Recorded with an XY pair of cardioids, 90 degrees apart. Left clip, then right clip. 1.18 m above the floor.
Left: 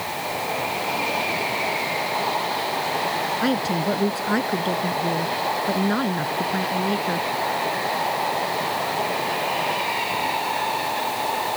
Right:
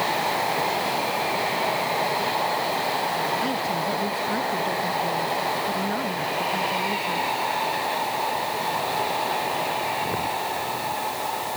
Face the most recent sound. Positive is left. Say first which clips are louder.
# left 2 dB
turn(degrees=55)